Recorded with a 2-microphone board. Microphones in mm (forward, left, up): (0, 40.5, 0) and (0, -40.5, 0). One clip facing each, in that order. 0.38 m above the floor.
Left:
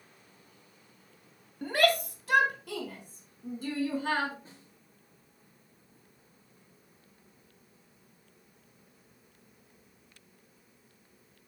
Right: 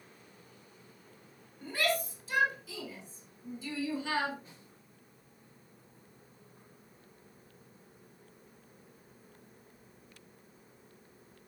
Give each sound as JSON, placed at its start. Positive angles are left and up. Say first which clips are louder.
{"t": 1.6, "sound": "a shout", "louder": "left 6 dB", "side_deg": 65, "distance_m": 2.5}
{"t": 4.5, "sound": "a snare drum", "louder": "left 2 dB", "side_deg": 35, "distance_m": 5.0}